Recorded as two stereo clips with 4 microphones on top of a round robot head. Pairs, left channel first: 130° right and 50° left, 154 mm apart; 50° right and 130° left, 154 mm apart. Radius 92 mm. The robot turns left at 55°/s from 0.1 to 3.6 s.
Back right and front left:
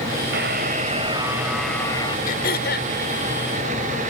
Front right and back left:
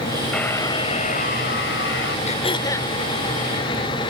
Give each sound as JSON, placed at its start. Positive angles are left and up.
{"t": 0.3, "sound": "a buzzer", "azimuth_deg": 35}
{"t": 2.3, "sound": "throat clearing", "azimuth_deg": -95}